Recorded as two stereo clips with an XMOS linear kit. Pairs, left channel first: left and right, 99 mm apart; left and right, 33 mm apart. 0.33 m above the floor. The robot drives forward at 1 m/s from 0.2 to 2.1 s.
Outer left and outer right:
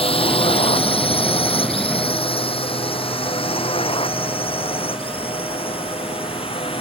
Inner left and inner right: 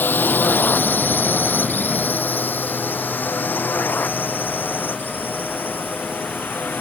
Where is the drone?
85° left; by 6.8 s 80° left.